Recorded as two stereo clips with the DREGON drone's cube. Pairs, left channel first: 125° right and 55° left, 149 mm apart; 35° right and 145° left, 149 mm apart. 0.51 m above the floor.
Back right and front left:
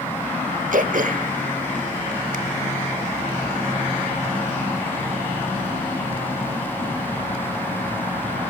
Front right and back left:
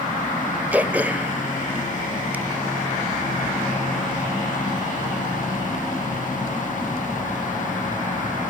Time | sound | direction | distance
0.7 | throat clearing | 70° left | 1.3 m